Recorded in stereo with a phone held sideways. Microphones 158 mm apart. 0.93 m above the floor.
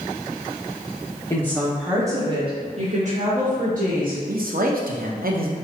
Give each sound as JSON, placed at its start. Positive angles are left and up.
{"t": 1.3, "sound": "a woman speaking", "side_deg": 20, "distance_m": 0.7}
{"t": 4.3, "sound": "a man speaking", "side_deg": -65, "distance_m": 0.6}